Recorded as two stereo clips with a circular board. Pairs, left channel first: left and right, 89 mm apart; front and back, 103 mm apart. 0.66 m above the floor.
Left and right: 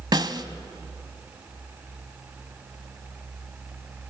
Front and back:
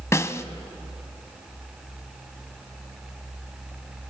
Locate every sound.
0.1 s a snare drum: 60° right, 0.9 m